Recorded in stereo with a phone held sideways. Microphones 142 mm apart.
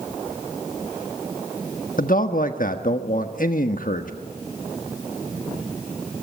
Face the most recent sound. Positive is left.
turn(degrees=70)  # may be behind; listen again after turning